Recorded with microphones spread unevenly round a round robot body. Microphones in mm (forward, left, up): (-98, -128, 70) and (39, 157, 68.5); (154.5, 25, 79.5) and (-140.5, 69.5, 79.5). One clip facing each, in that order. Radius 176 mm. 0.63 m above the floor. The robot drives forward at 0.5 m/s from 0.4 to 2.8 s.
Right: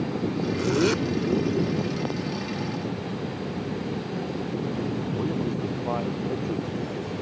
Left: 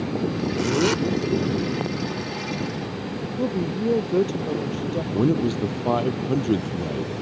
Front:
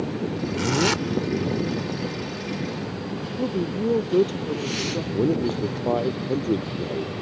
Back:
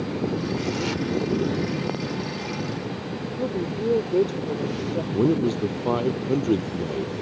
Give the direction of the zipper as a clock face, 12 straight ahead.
1 o'clock.